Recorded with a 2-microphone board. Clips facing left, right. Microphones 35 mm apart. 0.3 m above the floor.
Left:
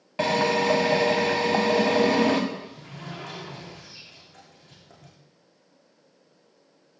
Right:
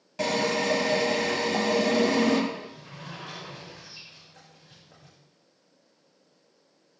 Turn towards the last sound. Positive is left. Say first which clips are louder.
# left 1 dB
turn(degrees=80)